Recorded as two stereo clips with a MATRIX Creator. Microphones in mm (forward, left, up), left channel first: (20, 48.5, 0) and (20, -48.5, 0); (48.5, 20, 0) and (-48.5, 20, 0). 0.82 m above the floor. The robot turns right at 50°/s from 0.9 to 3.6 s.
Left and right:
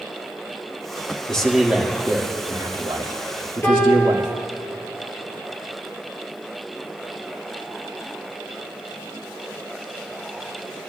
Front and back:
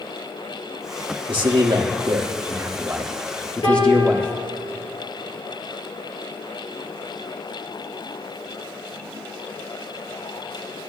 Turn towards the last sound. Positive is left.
turn(degrees=25)